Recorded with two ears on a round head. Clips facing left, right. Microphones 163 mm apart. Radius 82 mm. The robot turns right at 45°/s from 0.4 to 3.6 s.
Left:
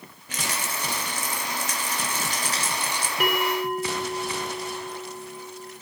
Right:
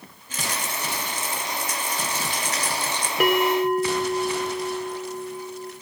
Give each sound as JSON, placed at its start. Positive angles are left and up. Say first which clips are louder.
{"t": 0.3, "sound": "a rattle", "louder": "right 1 dB", "azimuth_deg": 55, "distance_m": 3.0}
{"t": 3.2, "sound": "a bell", "louder": "right 6 dB", "side_deg": -70, "distance_m": 3.0}